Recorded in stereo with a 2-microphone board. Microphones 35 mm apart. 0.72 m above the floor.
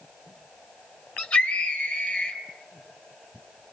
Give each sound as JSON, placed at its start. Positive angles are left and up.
{"t": 1.2, "sound": "a scream", "side_deg": 40, "distance_m": 3.5}